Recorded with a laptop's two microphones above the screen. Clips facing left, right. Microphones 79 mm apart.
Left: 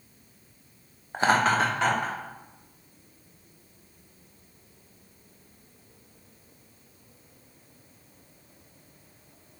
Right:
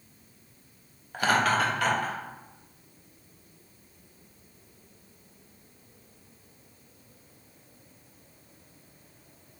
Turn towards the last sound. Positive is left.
turn(degrees=25)  # may be behind; listen again after turning